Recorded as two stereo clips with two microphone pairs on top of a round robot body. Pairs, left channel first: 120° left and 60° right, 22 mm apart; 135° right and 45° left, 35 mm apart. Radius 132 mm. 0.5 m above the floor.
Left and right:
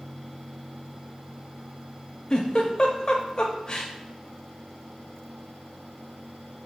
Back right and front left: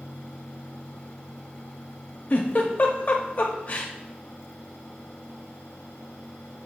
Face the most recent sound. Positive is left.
turn(degrees=180)